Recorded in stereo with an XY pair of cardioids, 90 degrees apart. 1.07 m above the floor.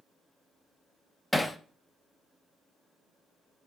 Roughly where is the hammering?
Ahead.